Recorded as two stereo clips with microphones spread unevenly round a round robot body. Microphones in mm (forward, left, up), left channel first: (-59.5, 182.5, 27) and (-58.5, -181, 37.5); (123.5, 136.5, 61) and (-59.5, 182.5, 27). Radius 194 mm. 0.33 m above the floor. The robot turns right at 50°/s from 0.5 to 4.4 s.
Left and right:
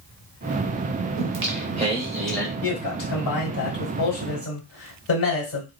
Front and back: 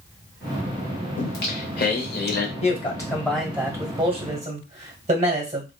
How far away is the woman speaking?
About 1.6 m.